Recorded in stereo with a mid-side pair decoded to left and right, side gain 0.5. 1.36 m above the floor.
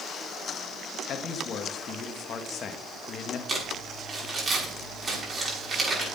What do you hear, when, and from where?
1.1 s a man speaking: 55° left, 1.7 m
3.5 s crumpling: 30° right, 6.5 m